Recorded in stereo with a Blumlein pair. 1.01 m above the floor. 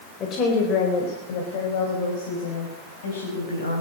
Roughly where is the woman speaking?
Ahead left.